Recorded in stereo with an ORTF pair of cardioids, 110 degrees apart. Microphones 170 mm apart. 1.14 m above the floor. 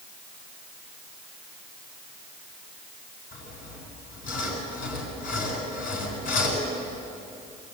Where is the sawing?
60° left, 7.5 m.